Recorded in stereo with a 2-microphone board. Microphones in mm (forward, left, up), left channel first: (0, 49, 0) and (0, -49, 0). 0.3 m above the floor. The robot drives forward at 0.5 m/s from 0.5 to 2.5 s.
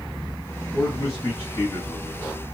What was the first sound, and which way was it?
A man speaking, 30° left (ahead or behind).